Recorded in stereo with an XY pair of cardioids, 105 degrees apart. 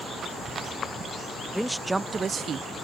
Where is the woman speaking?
Straight ahead; by 2.7 s 65° right.